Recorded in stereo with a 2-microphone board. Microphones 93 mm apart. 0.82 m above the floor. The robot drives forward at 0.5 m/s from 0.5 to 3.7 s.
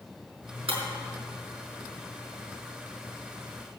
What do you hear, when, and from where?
0.7 s breaking glass: 75° right (ahead or behind), 4.5 m